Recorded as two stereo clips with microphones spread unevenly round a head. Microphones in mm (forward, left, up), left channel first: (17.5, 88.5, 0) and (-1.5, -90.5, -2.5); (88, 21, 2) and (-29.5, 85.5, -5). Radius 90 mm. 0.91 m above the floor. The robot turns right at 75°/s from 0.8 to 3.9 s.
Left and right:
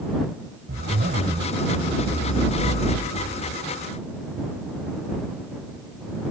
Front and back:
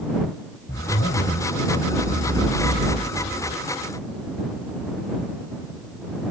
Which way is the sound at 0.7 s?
75° right.